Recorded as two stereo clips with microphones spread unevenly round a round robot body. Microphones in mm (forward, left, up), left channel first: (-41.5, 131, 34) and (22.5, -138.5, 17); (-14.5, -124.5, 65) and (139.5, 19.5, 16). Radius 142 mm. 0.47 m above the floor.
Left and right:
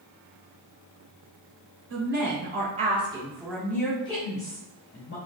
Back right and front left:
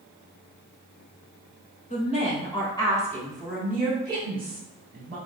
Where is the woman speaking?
80° right, 1.3 m; by 5.2 s 60° left, 1.4 m.